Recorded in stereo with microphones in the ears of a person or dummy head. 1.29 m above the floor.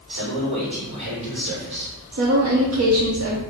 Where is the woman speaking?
70° right (ahead or behind), 0.8 m.